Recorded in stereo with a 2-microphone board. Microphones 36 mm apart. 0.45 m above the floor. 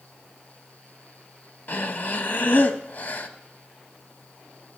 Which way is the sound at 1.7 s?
60° left (ahead or behind).